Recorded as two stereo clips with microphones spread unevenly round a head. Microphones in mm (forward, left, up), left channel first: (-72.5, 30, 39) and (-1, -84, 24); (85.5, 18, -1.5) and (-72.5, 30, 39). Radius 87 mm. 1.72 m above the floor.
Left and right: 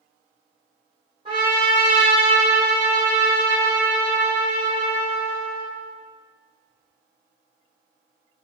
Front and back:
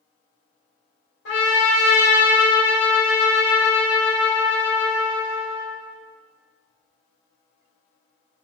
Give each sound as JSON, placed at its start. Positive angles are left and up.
{"t": 1.2, "sound": "a trumpet", "azimuth_deg": 5, "distance_m": 2.5}